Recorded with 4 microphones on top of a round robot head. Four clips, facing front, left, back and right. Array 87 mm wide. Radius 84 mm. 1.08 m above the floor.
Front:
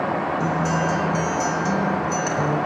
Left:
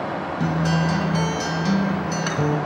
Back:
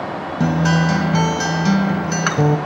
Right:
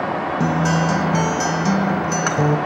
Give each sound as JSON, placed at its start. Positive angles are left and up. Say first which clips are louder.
{"t": 0.4, "sound": "a guitar", "louder": "right 3 dB, back 4 dB", "azimuth_deg": -155, "distance_m": 1.3}